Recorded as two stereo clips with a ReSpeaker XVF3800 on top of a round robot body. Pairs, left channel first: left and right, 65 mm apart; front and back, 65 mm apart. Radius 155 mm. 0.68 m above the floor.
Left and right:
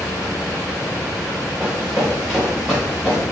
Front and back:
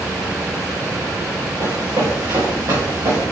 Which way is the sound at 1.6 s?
155° right.